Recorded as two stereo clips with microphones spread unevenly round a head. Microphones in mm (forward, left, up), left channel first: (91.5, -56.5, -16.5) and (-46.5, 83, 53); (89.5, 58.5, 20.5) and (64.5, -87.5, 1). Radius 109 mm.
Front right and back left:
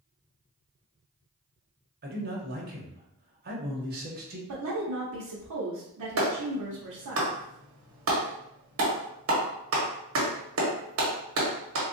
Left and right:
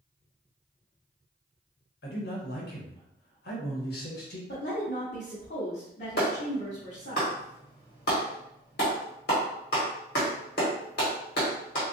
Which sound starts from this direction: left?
A man speaking, at 2.0 s.